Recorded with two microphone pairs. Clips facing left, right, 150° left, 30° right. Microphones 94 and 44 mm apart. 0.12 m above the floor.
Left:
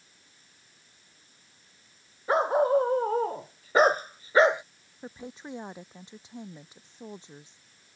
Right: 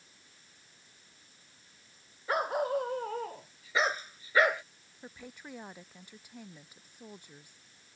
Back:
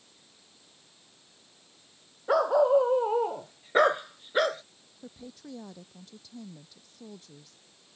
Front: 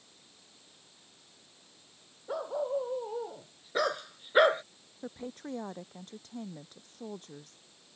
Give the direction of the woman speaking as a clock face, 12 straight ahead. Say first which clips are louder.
Left 7 dB, front 4 dB; 11 o'clock.